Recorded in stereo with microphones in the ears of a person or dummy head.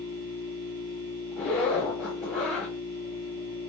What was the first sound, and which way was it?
A machine running, 70° right (ahead or behind).